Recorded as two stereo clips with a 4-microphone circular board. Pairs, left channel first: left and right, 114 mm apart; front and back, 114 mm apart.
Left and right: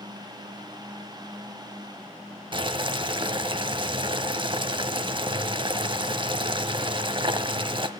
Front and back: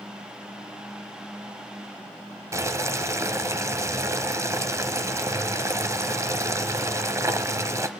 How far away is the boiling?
About 0.9 m.